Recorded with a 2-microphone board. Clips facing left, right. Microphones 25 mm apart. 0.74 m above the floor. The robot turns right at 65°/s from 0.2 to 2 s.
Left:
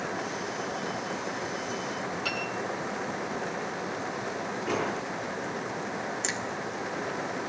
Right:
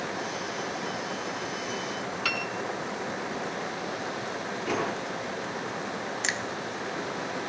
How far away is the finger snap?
About 1.2 m.